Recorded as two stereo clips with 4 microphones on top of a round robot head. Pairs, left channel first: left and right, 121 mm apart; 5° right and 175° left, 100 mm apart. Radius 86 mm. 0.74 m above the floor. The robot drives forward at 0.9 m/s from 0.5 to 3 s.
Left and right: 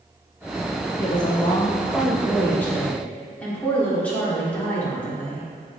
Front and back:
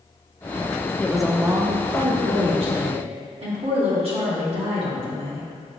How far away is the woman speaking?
About 0.6 m.